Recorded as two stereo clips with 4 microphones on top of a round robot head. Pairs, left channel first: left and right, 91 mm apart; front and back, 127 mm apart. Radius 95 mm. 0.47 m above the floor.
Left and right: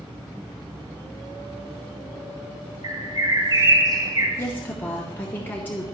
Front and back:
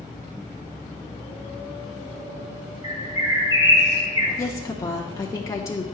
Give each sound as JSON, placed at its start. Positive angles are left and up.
{"t": 2.8, "sound": "a bird", "azimuth_deg": -125, "distance_m": 1.2}
{"t": 4.4, "sound": "a woman speaking", "azimuth_deg": 40, "distance_m": 0.8}